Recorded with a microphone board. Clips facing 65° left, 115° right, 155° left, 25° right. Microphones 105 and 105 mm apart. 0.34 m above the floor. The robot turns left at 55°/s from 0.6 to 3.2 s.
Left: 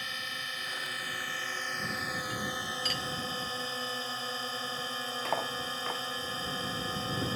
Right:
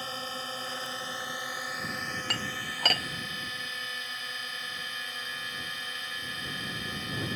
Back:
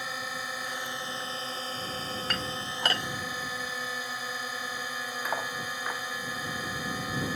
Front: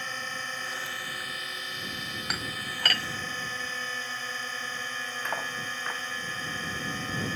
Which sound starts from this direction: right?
Dishes clattering, at 2.3 s.